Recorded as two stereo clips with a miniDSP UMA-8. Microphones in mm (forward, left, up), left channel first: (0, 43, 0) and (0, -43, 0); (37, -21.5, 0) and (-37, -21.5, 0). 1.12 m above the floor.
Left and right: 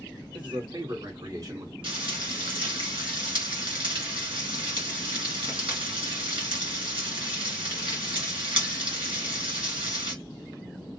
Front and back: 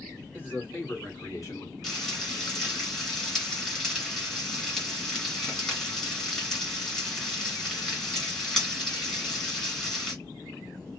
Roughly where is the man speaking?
Ahead right.